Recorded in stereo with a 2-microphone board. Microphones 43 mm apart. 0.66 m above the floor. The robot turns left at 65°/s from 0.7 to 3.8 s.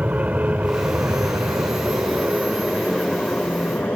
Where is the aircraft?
35° right (ahead or behind); by 4.0 s 50° left (ahead or behind).